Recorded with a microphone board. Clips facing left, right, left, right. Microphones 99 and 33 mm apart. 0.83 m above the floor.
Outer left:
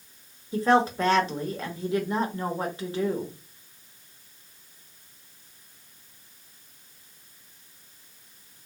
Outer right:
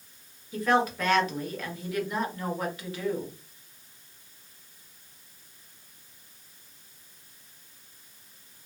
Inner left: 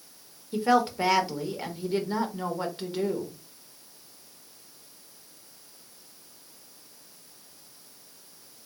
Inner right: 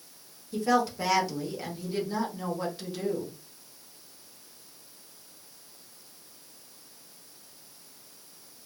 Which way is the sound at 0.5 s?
30° left (ahead or behind).